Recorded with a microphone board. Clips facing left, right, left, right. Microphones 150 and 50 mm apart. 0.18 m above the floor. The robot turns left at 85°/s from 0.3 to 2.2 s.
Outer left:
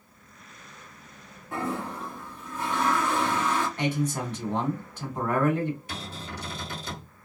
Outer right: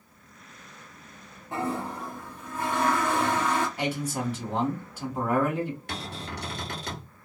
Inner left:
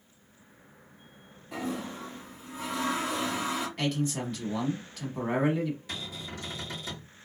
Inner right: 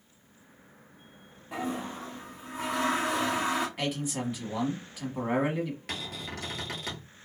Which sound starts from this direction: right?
A cupboard door, at 5.9 s.